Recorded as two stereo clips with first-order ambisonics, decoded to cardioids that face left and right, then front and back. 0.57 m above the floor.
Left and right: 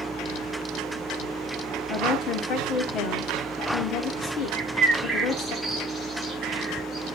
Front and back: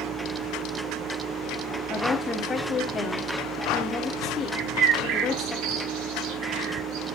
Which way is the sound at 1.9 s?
70° left.